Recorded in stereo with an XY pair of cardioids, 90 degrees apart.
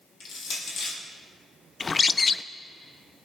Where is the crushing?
60° left, 7 m.